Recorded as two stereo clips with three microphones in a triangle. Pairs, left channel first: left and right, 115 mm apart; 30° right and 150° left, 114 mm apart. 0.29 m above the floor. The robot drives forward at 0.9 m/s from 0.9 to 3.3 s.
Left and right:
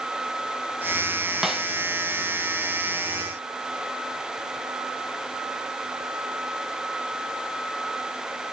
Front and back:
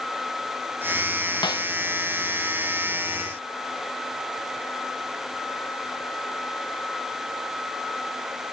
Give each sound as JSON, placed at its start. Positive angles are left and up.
{"t": 1.4, "sound": "a snare drum", "azimuth_deg": -5, "distance_m": 1.4}